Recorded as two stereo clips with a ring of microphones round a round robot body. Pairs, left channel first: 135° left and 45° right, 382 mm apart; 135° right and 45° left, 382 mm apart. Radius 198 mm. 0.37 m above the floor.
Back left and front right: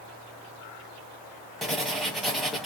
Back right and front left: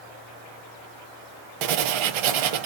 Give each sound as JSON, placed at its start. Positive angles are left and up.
{"t": 1.6, "sound": "writing", "azimuth_deg": 45, "distance_m": 0.8}